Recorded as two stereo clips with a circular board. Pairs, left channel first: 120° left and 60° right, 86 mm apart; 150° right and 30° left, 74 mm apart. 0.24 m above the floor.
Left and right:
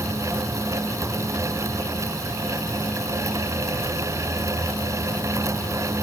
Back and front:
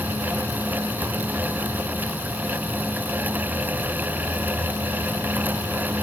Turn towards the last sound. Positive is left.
No sound to turn to.